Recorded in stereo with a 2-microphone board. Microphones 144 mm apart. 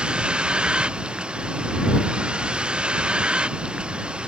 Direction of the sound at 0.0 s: 5° right (ahead or behind).